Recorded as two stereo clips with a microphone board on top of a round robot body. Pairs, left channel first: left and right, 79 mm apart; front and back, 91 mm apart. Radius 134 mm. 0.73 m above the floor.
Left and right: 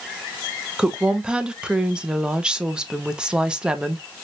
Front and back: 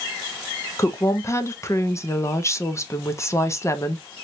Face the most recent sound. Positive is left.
turn(degrees=-20)